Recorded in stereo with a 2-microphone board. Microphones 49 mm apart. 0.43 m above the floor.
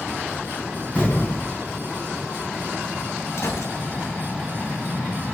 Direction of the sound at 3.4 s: 65° left (ahead or behind).